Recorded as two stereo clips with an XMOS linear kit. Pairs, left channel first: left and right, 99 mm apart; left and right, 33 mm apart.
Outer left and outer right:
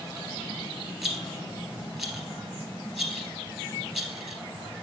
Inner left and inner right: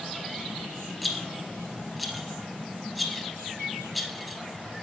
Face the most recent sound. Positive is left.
turn(degrees=0)  # may be behind; listen again after turning